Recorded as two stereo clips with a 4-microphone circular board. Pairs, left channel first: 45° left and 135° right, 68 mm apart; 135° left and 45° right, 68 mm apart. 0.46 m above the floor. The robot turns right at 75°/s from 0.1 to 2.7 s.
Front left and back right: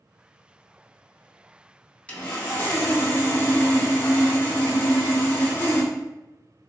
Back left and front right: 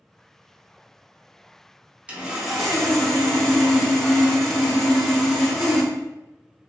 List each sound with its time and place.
2.1 s sawing: straight ahead, 0.6 m; by 5.9 s 45° left, 0.6 m